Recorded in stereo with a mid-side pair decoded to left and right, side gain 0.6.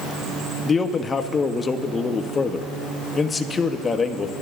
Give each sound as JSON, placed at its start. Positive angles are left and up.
{"t": 0.7, "sound": "a man speaking", "azimuth_deg": 25, "distance_m": 1.0}